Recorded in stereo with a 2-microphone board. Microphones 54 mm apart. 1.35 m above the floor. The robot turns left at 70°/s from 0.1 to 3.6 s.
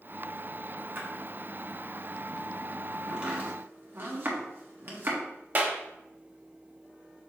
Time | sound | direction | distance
0.9 | a splash | 45° right (ahead or behind) | 1.0 m
3.1 | chopping | 10° right (ahead or behind) | 1.2 m
5.5 | a clap | 35° right (ahead or behind) | 0.9 m